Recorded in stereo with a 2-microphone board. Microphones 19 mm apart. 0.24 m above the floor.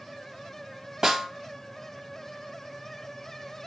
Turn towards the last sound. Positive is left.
turn(degrees=-35)  # may be behind; listen again after turning